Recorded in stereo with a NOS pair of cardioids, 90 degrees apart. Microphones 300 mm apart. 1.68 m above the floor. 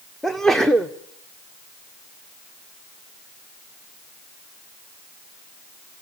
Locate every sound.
0.2 s a sneeze: straight ahead, 0.9 m